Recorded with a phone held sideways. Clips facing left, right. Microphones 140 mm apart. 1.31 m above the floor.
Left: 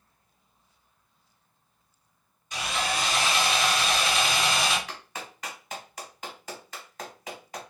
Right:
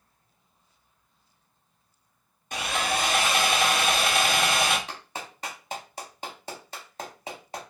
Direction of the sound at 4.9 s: 30° right (ahead or behind).